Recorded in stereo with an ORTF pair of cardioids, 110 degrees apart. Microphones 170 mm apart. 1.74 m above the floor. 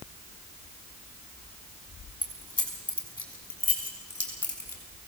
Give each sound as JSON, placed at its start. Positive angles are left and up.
{"t": 2.2, "sound": "keys jangling", "azimuth_deg": 10, "distance_m": 5.5}